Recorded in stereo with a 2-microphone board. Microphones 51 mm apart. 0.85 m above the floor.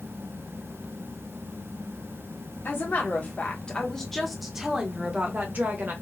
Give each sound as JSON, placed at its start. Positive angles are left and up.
{"t": 2.6, "sound": "a woman speaking", "side_deg": 45, "distance_m": 1.2}